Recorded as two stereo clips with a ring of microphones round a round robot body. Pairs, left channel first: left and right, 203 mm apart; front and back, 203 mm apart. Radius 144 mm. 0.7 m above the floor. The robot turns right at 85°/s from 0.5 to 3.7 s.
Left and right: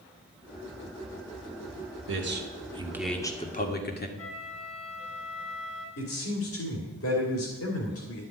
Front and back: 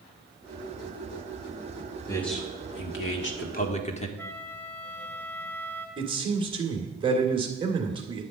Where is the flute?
80° left, 2 m.